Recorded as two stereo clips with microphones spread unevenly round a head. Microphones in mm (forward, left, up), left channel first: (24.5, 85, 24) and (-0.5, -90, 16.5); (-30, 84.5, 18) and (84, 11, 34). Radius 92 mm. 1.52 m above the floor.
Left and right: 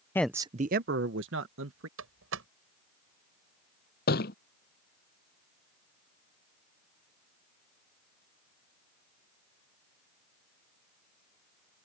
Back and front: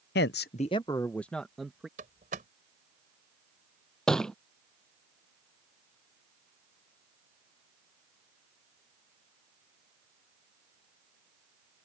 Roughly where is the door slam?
Right.